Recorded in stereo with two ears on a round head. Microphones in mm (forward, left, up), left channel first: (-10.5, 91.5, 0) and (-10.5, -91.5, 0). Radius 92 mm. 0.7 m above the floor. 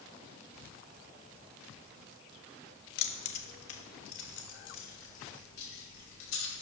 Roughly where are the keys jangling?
Left.